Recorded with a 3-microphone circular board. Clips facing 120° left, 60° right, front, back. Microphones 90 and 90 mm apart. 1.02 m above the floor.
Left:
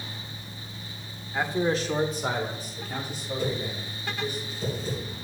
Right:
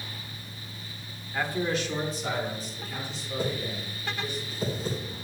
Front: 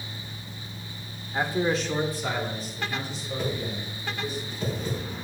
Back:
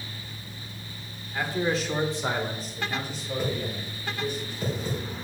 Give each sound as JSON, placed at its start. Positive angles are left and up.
{"t": 1.3, "sound": "a man speaking", "azimuth_deg": 50, "distance_m": 1.1}
{"t": 3.4, "sound": "a whoosh", "azimuth_deg": -100, "distance_m": 3.5}